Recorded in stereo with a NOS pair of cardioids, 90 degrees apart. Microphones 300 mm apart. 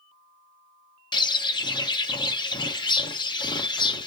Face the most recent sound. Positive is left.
turn(degrees=15)